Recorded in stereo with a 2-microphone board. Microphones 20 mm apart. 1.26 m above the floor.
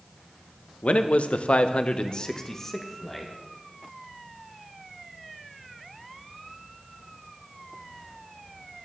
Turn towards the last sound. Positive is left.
turn(degrees=10)  # may be behind; listen again after turning